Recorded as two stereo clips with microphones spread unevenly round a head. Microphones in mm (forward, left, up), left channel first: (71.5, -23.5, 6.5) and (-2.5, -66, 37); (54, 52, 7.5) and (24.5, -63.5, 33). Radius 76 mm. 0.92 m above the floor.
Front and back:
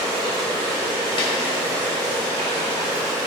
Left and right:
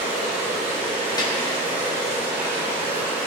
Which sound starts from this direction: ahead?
A snare drum, at 1.2 s.